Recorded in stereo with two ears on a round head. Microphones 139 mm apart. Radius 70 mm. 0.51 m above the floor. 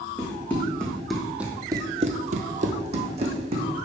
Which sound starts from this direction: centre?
Running footsteps, at 0.2 s.